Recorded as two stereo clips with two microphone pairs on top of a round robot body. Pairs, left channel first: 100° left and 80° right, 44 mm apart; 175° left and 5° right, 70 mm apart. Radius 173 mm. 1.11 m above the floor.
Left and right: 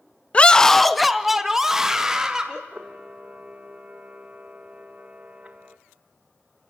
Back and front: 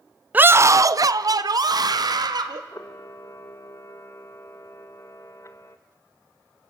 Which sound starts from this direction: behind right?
A camera shutter, at 2.7 s.